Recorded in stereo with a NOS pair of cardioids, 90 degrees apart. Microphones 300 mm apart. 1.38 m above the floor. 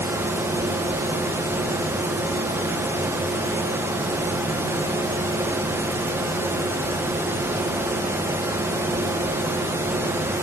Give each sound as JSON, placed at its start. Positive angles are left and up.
{"t": 0.0, "sound": "a fan", "azimuth_deg": -10, "distance_m": 0.8}